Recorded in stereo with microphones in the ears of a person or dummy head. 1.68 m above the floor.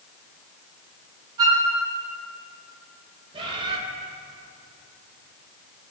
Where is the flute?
25° right (ahead or behind), 2.5 m.